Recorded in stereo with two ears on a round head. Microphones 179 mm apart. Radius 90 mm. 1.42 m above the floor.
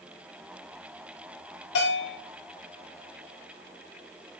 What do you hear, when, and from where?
1.8 s a bell: 65° left (ahead or behind), 6 m